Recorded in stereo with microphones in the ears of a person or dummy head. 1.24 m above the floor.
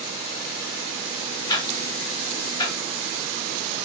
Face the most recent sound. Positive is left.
turn(degrees=25)  # may be behind; listen again after turning